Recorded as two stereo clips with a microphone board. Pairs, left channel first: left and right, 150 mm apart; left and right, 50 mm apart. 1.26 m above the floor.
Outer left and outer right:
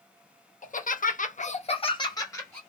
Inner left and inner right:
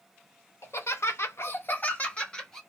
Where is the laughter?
60° left (ahead or behind), 0.8 m; by 2.6 s 15° left (ahead or behind), 1.0 m.